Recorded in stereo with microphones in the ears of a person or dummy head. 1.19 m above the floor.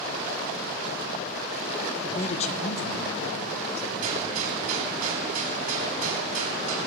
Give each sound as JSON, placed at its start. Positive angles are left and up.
{"t": 2.0, "sound": "a man speaking", "side_deg": 40, "distance_m": 0.9}
{"t": 4.0, "sound": "a gunshot", "side_deg": -45, "distance_m": 3.0}